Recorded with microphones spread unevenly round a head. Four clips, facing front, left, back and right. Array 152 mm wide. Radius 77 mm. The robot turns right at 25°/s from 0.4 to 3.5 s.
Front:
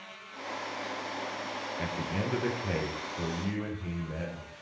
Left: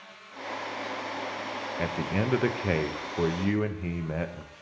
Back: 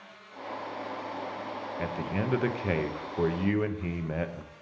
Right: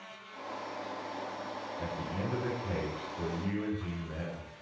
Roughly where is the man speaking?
Left.